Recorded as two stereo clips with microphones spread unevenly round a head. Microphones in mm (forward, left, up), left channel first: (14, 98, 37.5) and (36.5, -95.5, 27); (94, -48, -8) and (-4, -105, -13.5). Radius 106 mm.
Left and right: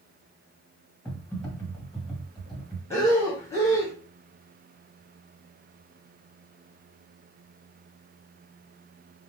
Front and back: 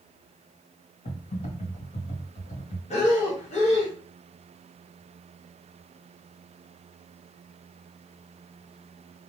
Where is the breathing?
20° left, 1.2 m.